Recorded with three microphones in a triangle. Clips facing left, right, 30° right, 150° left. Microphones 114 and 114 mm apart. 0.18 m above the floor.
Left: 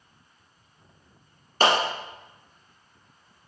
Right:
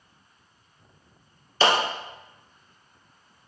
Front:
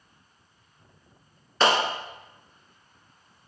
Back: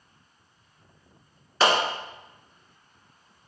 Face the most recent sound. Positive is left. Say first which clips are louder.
# even, even
turn(degrees=65)